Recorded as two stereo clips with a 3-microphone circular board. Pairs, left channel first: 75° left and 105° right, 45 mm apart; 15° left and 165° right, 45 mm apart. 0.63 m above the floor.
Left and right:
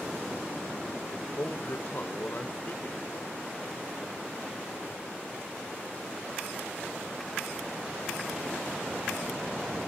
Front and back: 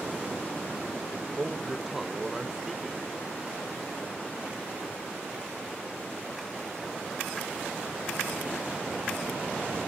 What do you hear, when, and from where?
1.4 s a man speaking: 115° left, 1.7 m